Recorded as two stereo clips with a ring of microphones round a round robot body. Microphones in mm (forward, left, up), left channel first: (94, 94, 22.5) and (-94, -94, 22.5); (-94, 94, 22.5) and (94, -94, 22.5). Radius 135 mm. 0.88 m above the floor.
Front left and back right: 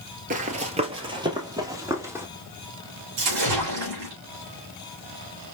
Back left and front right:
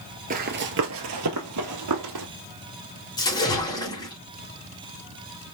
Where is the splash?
150° right, 3.5 m.